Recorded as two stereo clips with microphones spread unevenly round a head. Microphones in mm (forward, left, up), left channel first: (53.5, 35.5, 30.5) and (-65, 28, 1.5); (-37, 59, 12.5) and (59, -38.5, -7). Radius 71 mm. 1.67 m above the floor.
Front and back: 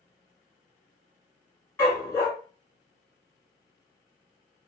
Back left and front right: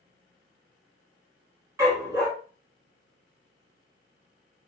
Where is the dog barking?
20° left, 1.2 m.